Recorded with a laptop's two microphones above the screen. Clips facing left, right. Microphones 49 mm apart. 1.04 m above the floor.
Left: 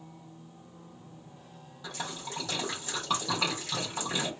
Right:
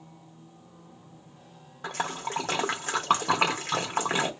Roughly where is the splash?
Right.